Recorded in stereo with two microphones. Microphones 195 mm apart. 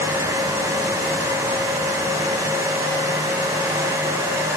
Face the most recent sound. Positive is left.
No sound to turn to.